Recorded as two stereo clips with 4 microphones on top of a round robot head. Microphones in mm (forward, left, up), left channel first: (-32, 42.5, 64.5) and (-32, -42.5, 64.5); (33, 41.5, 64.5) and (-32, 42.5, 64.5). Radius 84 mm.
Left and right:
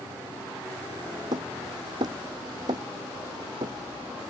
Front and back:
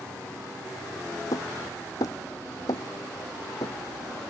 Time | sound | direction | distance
1.3 | hammering | 45° right | ?